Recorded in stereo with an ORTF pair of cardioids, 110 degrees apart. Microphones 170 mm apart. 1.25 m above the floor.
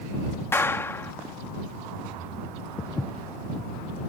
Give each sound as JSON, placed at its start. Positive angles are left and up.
{"t": 0.5, "sound": "a clap", "azimuth_deg": 15}
{"t": 2.8, "sound": "footsteps", "azimuth_deg": 15}